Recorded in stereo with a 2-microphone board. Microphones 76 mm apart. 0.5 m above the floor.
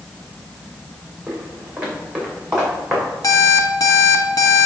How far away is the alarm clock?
About 1.5 m.